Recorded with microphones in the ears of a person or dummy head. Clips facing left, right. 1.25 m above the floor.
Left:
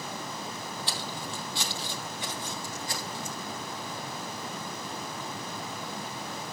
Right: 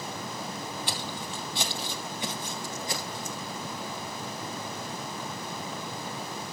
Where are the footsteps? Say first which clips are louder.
Right 1 dB; 10° right (ahead or behind), 2 m.